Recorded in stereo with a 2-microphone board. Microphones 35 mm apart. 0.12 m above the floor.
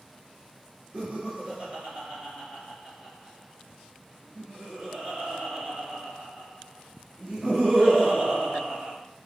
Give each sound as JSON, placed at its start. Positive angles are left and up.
{"t": 0.9, "sound": "laughter", "side_deg": -40, "distance_m": 1.8}